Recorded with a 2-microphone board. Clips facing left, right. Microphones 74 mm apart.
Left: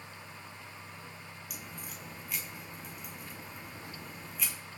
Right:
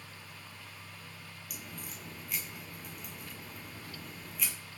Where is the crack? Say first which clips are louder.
Right 1 dB; centre (ahead or behind), 1.1 m.